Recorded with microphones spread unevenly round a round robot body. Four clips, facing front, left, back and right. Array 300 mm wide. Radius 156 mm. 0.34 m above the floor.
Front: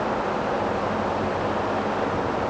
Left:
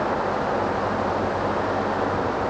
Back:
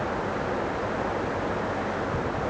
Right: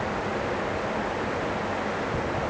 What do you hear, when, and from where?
Only background noise.